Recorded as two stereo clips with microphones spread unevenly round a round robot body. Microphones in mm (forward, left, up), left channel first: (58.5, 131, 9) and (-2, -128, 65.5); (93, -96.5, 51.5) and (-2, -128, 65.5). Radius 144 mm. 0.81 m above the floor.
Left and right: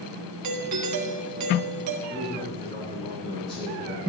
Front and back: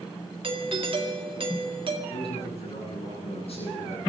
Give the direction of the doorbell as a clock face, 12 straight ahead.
4 o'clock.